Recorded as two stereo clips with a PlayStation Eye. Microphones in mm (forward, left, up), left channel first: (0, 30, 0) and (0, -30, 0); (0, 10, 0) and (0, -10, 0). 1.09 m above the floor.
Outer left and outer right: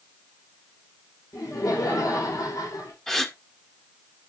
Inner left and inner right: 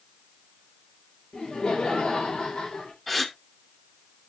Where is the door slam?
No door slam in this recording.